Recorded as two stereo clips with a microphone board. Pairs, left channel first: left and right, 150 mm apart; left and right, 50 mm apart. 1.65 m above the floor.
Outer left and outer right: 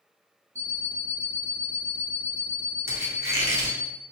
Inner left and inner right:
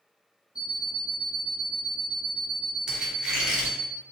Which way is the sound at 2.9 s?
15° right (ahead or behind).